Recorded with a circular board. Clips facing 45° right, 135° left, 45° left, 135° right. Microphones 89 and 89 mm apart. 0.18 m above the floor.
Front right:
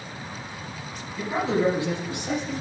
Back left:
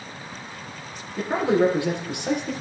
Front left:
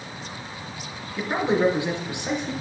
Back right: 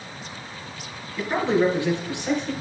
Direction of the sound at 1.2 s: 115° left.